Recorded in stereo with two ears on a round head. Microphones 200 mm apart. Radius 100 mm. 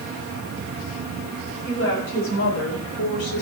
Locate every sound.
1.6 s a woman speaking: 55° left (ahead or behind), 5 m; by 3.4 s 70° left (ahead or behind), 4.5 m